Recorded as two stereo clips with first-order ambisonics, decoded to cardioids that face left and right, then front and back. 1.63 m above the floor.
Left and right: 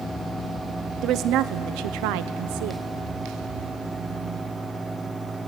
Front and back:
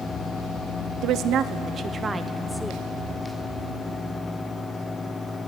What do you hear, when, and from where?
1.0 s a woman speaking: 140° right, 1.0 m; by 2.8 s 85° right, 1.1 m